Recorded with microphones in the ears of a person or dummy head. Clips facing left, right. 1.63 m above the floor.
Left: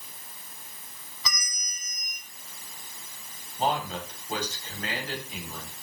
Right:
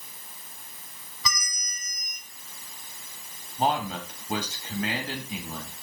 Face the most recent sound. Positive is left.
turn(degrees=-45)  # may be behind; listen again after turning